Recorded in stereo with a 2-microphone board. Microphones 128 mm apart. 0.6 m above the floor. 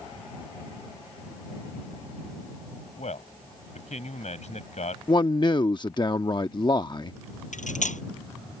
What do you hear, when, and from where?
3.0 s a man speaking: 70° left (ahead or behind)
5.1 s a man speaking: 35° left (ahead or behind)
7.5 s cutlery clinking: 85° left